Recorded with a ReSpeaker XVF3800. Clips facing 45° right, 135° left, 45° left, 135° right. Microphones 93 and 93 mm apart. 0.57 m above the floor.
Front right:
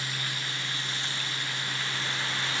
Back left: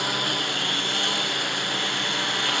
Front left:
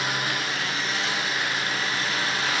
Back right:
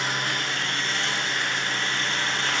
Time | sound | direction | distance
0.0 | a lawn mower | 130° left | ?